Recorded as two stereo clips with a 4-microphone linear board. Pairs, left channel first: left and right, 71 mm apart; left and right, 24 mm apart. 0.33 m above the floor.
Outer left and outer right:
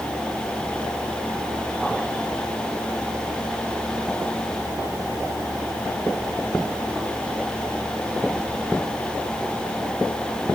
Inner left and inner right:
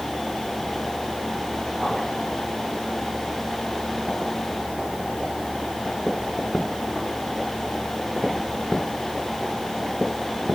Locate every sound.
Only background noise.